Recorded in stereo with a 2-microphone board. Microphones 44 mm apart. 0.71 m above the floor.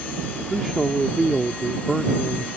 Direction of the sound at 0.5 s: 5° right (ahead or behind).